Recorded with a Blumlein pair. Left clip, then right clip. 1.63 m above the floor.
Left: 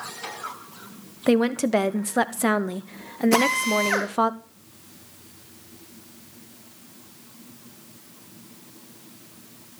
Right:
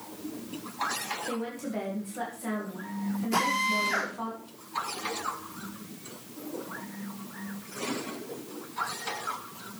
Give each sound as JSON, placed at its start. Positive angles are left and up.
{"t": 1.3, "sound": "a woman speaking", "azimuth_deg": 40, "distance_m": 0.9}
{"t": 3.3, "sound": "a drill", "azimuth_deg": 40, "distance_m": 2.5}